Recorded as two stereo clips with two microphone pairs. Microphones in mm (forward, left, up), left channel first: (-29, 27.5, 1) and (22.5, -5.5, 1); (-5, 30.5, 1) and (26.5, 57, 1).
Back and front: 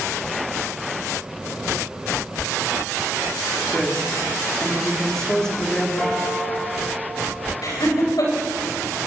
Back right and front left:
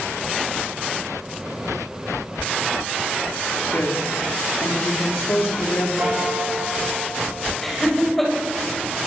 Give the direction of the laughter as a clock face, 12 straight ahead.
7 o'clock.